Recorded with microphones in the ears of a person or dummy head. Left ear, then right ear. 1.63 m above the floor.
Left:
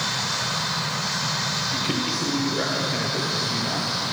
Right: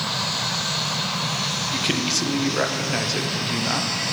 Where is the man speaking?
30° right (ahead or behind), 0.9 m.